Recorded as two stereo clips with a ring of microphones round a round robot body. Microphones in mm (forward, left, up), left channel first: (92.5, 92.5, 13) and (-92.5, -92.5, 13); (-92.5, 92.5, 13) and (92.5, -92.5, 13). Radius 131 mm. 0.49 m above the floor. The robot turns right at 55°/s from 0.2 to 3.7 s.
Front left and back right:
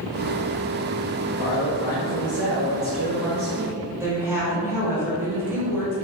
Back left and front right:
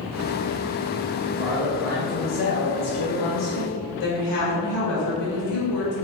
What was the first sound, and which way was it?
A man speaking, 15° left.